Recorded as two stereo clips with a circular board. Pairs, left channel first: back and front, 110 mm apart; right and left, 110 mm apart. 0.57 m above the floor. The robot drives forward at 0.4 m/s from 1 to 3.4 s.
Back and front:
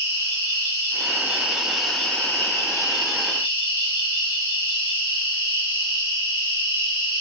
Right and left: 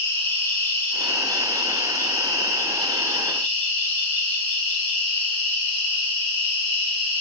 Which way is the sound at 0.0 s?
40° right.